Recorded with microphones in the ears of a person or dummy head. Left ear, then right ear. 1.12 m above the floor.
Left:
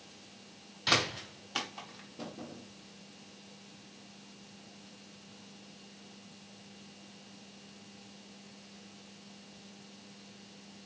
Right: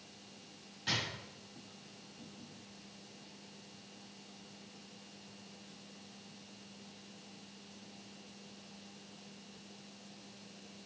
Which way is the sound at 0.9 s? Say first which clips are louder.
Left 8 dB; 30° left (ahead or behind).